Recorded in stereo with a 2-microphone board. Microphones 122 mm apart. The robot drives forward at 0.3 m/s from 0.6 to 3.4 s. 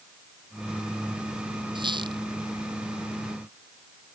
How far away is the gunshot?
No gunshot in this recording.